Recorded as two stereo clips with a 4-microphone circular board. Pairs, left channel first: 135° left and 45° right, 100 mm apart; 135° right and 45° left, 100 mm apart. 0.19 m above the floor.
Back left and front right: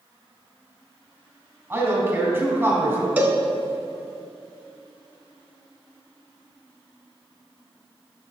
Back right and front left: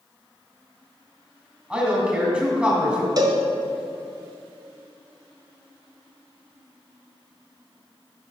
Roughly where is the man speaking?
Ahead.